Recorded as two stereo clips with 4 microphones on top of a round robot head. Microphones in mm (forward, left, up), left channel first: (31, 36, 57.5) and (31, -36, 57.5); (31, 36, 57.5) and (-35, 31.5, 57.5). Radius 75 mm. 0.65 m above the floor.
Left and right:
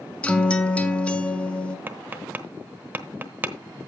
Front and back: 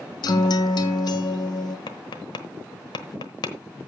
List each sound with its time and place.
0.2 s a guitar: 15° left, 1.5 m
1.9 s tapping: 25° right, 1.0 m